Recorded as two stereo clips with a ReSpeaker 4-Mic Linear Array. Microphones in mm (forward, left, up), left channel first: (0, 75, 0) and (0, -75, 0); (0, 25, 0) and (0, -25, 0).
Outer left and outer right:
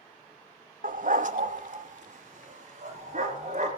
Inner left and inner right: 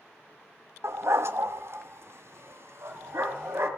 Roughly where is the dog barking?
Right.